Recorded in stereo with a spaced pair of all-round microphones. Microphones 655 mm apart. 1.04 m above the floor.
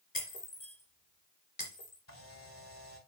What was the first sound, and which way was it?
Breaking glass, 65° left (ahead or behind).